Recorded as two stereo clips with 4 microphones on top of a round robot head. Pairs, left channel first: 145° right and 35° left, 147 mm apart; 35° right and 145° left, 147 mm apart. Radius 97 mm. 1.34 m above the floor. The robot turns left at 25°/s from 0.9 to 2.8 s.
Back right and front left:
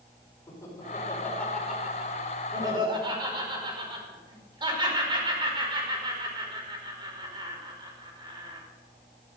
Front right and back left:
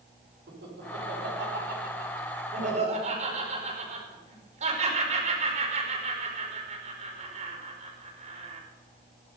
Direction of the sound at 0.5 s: 145° left.